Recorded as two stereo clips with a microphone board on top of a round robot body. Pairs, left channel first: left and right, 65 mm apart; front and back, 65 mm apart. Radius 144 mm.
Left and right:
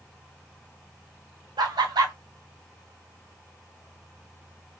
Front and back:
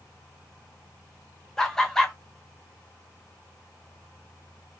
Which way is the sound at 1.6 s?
80° right.